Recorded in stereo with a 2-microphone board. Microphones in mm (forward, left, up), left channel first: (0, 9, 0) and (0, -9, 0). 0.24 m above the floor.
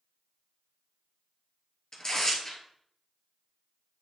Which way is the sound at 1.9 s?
35° left (ahead or behind).